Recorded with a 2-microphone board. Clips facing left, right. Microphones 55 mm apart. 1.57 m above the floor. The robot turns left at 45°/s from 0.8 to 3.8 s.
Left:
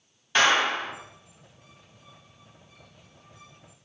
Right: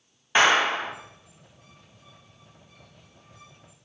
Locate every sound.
0.3 s a clap: 20° right (ahead or behind), 0.6 m; by 0.9 s 15° right (ahead or behind), 0.6 m